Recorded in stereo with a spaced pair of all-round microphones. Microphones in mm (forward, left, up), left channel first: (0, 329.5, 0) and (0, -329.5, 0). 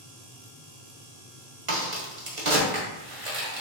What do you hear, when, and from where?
1.7 s a crack: 50° right (ahead or behind), 1.2 m